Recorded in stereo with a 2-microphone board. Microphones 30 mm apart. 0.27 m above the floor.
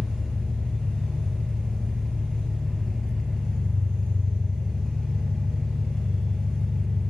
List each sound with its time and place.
0.0 s an engine running: 10° left (ahead or behind), 1.9 m